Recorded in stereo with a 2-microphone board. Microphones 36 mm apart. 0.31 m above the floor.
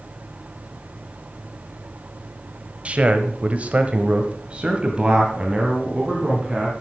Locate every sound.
2.9 s a man speaking: 35° right (ahead or behind), 1.3 m; by 6.7 s 20° right (ahead or behind), 2.5 m